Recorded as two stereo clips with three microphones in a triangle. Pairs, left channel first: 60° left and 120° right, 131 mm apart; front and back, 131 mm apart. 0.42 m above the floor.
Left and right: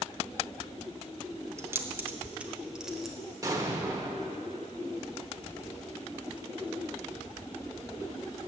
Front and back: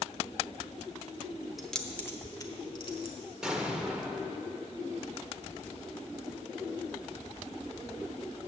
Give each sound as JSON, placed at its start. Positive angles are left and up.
{"t": 1.6, "sound": "keys jangling", "azimuth_deg": -95, "distance_m": 0.8}
{"t": 3.4, "sound": "an explosion", "azimuth_deg": -105, "distance_m": 1.0}